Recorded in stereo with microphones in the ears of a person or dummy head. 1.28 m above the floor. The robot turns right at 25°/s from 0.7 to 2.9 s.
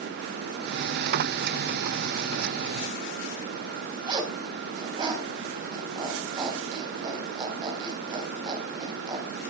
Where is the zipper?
25° right (ahead or behind), 3.5 m.